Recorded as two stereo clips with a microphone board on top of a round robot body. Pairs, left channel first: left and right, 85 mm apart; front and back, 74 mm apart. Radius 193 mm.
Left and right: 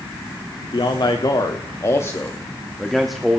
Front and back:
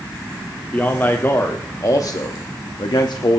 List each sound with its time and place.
0.7 s a man speaking: 65° left, 1.9 m; by 3.4 s 10° right, 1.6 m